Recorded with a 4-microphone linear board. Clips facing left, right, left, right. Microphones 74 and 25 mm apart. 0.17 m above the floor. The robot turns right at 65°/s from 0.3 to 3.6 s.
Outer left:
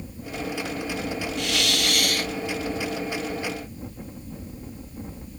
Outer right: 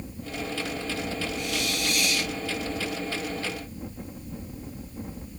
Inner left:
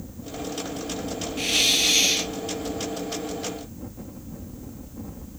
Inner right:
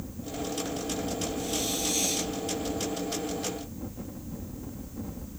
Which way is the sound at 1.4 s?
75° left.